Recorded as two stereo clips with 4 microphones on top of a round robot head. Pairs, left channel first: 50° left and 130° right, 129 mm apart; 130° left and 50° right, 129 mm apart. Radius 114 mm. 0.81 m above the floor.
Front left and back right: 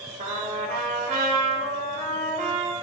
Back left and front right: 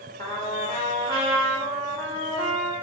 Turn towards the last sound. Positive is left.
turn(degrees=-170)